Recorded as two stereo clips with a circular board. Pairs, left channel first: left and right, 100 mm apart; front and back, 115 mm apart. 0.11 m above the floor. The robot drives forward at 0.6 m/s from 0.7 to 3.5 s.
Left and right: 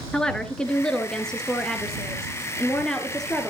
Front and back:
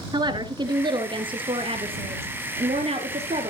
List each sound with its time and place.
0.1 s a woman speaking: 170° left, 2 m; by 3.5 s 175° left, 3.5 m